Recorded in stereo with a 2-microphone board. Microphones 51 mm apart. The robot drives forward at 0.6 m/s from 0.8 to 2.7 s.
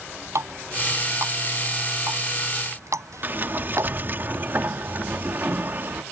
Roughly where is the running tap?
Right.